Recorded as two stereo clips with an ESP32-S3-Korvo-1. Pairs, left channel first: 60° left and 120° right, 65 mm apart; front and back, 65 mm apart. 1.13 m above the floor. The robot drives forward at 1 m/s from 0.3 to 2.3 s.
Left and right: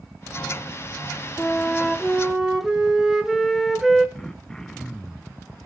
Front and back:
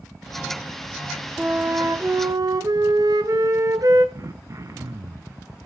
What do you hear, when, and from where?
1.4 s a flute: 105° left, 0.7 m; by 4.0 s 155° left, 1.3 m
4.2 s throat clearing: 140° left, 0.8 m